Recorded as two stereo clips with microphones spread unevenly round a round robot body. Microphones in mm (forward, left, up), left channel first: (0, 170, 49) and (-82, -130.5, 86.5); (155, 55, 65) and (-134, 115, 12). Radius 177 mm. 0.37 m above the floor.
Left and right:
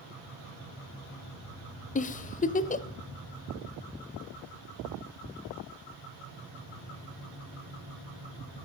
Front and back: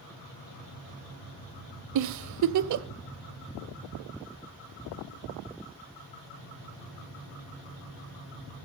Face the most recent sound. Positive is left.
turn(degrees=140)